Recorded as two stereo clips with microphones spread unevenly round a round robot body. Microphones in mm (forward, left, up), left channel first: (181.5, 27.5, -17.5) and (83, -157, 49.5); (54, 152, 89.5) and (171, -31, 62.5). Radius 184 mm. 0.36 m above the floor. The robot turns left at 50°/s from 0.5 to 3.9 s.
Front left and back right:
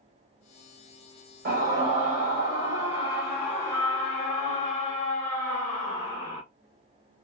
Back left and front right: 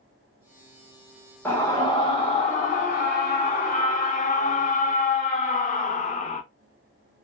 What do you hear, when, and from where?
1.4 s a scream: 150° right, 0.9 m; by 6.4 s 90° left, 0.9 m